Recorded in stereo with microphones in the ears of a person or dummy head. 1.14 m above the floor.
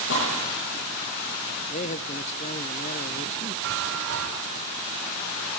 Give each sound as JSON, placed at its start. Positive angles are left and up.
{"t": 0.1, "sound": "a gunshot", "side_deg": 80, "distance_m": 9.5}
{"t": 1.7, "sound": "a man speaking", "side_deg": 35, "distance_m": 0.8}
{"t": 3.6, "sound": "a chime", "side_deg": -80, "distance_m": 5.5}